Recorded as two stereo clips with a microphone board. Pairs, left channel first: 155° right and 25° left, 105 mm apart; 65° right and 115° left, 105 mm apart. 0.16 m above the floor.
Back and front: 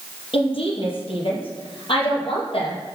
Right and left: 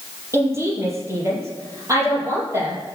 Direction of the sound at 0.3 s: 175° left.